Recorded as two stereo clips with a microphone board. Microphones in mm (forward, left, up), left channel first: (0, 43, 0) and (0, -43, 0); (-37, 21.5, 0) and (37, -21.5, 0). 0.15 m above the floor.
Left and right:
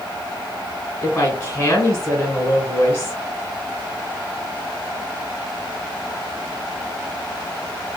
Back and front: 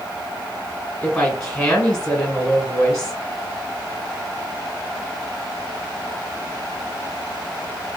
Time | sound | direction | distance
1.0 | a woman speaking | 80° left | 1.6 m